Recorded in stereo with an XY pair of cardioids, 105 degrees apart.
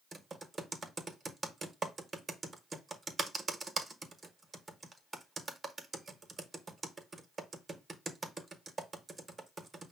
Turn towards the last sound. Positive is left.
turn(degrees=-25)